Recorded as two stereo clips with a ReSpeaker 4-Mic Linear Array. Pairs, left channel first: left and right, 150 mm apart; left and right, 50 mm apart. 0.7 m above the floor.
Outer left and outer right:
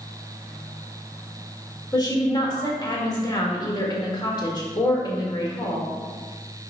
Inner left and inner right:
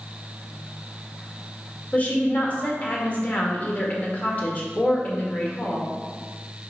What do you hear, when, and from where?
1.9 s a woman speaking: 30° left (ahead or behind), 1.7 m